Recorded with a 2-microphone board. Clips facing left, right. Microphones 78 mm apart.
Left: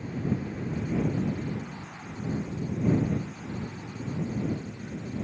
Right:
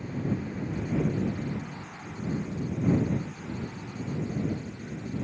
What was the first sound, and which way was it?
Only background noise.